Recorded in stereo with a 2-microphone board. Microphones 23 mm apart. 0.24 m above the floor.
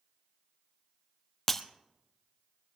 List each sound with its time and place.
1.5 s breaking glass: 15° left (ahead or behind), 1.0 m